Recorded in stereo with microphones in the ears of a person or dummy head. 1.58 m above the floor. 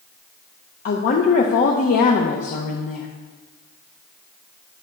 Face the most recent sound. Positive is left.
turn(degrees=45)  # may be behind; listen again after turning